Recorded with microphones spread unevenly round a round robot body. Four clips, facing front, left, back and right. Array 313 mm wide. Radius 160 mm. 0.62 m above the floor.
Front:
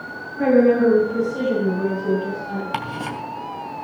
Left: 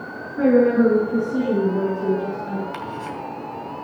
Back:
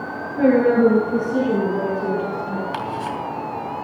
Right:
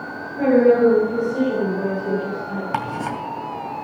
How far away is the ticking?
About 2.5 m.